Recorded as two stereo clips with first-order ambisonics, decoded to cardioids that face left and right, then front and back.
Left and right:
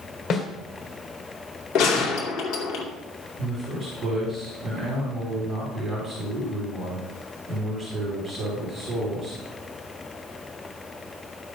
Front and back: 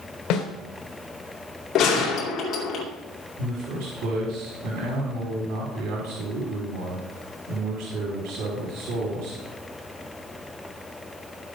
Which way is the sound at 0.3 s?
35° left.